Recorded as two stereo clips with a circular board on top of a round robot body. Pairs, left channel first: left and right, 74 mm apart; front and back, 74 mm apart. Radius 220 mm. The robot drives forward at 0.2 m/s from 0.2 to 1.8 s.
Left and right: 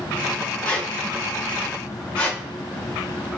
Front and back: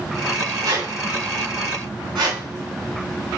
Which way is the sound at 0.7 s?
160° left.